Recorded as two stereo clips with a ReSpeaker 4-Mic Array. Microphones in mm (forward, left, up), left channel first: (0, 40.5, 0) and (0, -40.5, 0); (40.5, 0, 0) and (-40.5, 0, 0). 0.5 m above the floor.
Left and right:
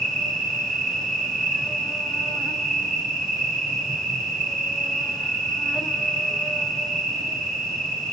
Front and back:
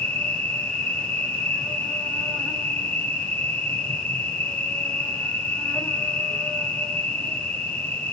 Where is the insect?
20° left, 1.7 m.